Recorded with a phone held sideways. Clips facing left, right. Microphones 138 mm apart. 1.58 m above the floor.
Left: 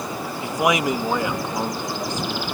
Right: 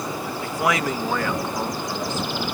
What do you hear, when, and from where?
0.4 s a man speaking: 20° left (ahead or behind); by 2.5 s 15° left (ahead or behind)